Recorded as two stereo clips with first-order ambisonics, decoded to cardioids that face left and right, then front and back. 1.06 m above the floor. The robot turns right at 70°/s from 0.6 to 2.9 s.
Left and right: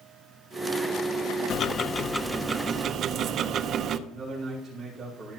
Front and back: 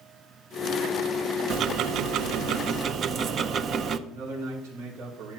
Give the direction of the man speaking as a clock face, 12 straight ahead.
6 o'clock.